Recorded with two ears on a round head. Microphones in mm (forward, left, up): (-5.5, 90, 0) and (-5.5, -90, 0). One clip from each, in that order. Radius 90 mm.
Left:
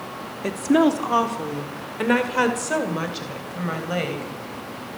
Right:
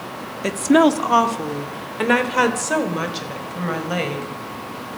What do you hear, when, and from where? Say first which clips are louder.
0.4 s a woman speaking: right 4 dB; 25° right (ahead or behind), 1.2 m; by 4.3 s 5° right (ahead or behind), 4 m